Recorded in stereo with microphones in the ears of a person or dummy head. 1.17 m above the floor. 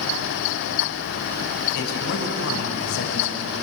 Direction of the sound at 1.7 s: 55° left (ahead or behind).